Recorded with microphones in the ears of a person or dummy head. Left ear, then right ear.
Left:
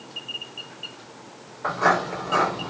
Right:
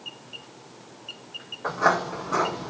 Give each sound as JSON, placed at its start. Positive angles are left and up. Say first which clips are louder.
{"t": 1.6, "sound": "footsteps", "louder": "left 2 dB", "side_deg": 0, "distance_m": 2.5}